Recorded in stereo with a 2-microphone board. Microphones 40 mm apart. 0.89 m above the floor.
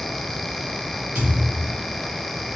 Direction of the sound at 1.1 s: 50° right (ahead or behind).